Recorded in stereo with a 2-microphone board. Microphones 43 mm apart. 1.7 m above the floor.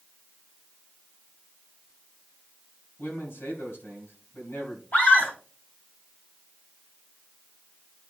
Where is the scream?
50° left (ahead or behind), 2 m.